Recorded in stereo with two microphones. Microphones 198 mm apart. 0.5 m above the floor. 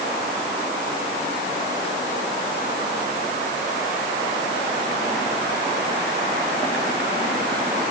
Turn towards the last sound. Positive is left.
No sound to turn to.